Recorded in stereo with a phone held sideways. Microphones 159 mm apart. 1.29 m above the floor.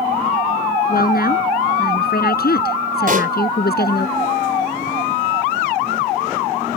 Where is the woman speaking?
70° left (ahead or behind); by 4.1 s 80° left.